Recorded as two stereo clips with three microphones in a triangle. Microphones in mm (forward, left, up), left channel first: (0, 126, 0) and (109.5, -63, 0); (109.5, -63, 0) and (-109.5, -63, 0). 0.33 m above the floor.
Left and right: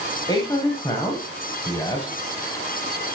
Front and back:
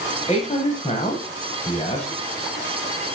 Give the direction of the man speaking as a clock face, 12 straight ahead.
10 o'clock.